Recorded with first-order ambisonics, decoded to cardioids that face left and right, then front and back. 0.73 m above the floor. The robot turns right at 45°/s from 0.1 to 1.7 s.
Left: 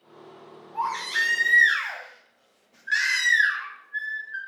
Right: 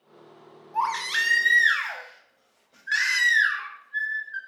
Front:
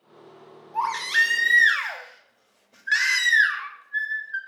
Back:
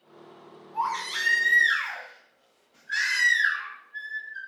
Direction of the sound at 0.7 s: 50° right.